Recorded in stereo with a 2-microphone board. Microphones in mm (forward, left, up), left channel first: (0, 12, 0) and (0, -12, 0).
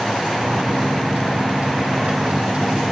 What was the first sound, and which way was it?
A microwave, 55° right (ahead or behind).